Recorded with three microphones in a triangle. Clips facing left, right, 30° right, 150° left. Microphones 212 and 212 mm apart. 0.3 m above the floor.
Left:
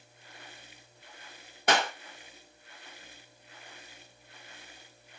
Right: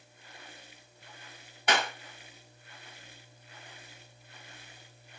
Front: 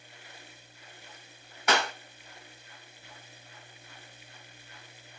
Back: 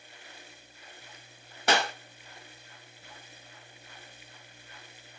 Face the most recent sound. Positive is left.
turn(degrees=110)